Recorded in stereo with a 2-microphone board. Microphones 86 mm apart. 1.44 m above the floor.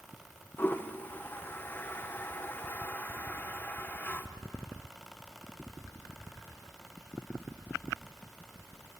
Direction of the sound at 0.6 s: 25° left (ahead or behind).